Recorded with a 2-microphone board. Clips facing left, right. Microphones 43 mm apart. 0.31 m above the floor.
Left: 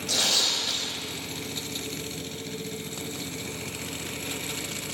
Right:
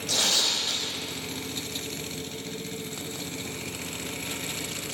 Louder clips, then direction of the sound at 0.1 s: Even; 15° right (ahead or behind).